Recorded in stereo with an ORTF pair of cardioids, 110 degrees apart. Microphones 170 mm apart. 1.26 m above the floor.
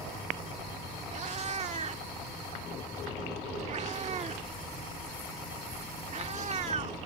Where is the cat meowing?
45° right.